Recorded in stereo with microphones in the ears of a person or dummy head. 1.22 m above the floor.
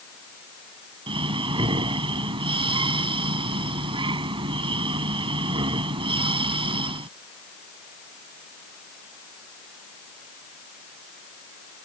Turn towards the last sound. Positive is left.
turn(degrees=-25)  # may be behind; listen again after turning